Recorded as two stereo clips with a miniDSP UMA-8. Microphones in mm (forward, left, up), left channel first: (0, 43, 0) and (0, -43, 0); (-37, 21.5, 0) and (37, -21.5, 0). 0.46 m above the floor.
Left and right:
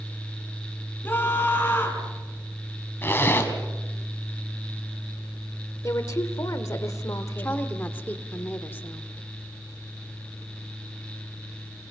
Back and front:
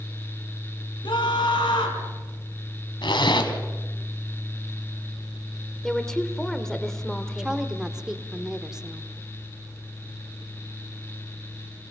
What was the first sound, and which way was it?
A scream, 155° left.